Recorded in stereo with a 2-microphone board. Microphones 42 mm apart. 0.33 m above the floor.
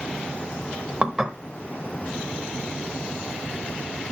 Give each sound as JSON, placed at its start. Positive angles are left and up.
{"t": 1.0, "sound": "dishes clattering", "side_deg": -15, "distance_m": 0.9}